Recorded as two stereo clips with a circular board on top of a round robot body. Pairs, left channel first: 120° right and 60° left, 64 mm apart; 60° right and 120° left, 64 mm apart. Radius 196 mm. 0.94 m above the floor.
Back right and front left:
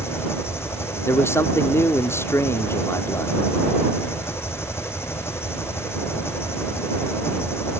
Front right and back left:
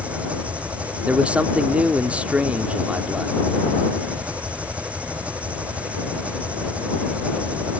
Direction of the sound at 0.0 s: 170° right.